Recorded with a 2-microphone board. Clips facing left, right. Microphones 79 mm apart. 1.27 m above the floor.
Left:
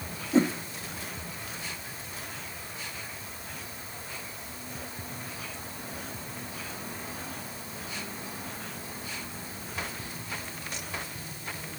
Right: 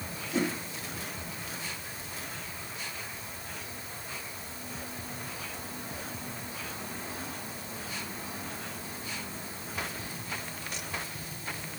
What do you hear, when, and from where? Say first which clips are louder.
0.3 s a whoosh: left 7 dB; 30° left (ahead or behind), 1.0 m